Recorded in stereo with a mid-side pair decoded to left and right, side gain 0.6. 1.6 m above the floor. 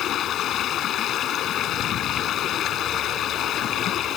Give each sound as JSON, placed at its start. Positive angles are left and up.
{"t": 0.0, "sound": "running water", "azimuth_deg": 50}